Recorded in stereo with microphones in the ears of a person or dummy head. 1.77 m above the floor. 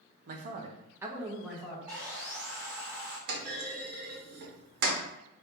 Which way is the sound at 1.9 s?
20° right (ahead or behind).